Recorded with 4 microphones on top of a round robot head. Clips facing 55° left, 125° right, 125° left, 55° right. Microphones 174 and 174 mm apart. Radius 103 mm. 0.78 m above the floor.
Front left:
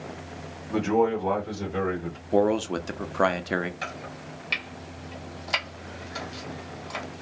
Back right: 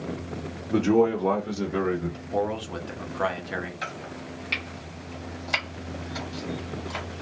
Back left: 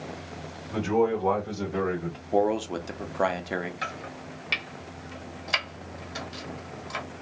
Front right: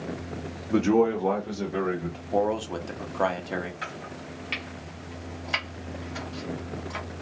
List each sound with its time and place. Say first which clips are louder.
0.7 s a man speaking: back right 3 dB, front right 3 dB; 65° right, 0.7 m; by 2.2 s 145° right, 1.4 m
2.3 s a man speaking: front left 6 dB, back left 1 dB; 50° left, 0.6 m
3.8 s chopping: back right 1 dB, even; 150° left, 1.2 m